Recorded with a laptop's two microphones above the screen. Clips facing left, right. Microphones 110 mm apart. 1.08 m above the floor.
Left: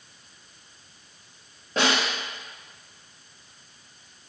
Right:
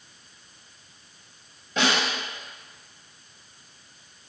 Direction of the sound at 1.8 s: 40° left (ahead or behind).